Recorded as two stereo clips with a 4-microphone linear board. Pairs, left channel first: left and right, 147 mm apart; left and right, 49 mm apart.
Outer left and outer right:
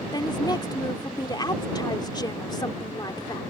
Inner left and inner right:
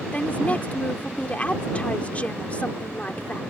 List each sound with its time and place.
0.1 s a woman speaking: 30° left (ahead or behind)